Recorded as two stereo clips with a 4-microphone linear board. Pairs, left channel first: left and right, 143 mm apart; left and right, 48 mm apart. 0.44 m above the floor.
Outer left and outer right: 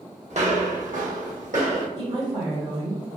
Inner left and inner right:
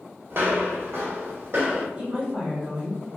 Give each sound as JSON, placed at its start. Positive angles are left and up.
{"t": 0.3, "sound": "footsteps", "side_deg": -55, "distance_m": 0.8}
{"t": 2.0, "sound": "a woman speaking", "side_deg": -25, "distance_m": 1.4}